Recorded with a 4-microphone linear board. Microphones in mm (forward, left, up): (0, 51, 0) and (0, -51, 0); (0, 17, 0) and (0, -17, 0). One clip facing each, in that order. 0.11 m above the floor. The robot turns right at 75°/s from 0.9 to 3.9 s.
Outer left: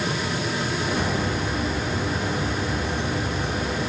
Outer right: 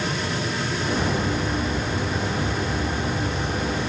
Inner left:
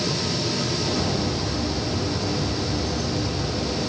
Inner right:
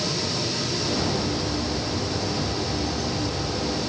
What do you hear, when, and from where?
Only background noise.